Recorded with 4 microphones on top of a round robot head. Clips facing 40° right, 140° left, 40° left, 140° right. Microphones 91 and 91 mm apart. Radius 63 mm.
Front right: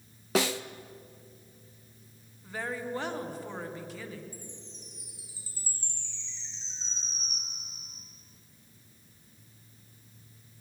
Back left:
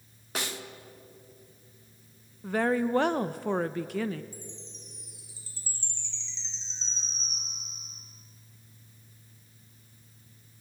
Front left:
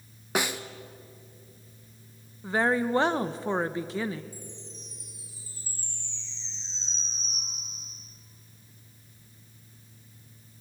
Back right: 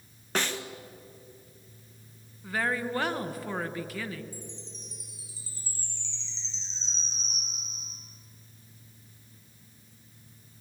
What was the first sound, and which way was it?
A snare drum, 40° right.